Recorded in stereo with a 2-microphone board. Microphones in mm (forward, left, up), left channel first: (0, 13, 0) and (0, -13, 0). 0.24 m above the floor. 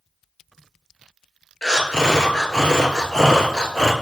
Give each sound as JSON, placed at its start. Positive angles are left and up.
{"t": 1.6, "sound": "breathing", "side_deg": 30, "distance_m": 0.8}